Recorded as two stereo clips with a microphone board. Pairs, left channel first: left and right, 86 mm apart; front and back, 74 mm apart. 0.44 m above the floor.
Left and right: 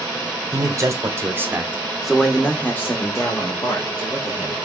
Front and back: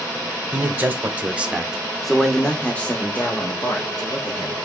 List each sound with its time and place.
0.5 s a man speaking: 125° right, 1.2 m; by 4.7 s 55° left, 1.7 m